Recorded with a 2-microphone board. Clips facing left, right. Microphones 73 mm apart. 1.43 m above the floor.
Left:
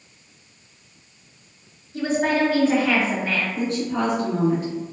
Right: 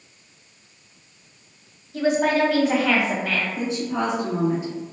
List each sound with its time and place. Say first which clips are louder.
1.9 s a woman speaking: right 1 dB; 80° right, 1.1 m
3.6 s a woman speaking: left 1 dB; 20° right (ahead or behind), 1.6 m